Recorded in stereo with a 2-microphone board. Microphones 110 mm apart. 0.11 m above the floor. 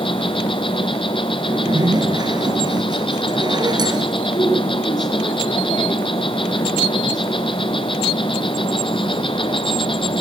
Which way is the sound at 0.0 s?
50° left (ahead or behind).